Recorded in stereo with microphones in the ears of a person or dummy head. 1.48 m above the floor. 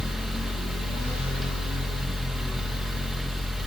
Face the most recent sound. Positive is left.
turn(degrees=0)  # may be behind; listen again after turning